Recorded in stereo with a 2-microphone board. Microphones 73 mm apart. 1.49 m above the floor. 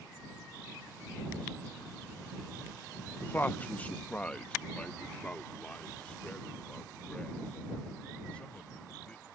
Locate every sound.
3.2 s a man speaking: 25° left (ahead or behind); by 9.2 s 15° left (ahead or behind)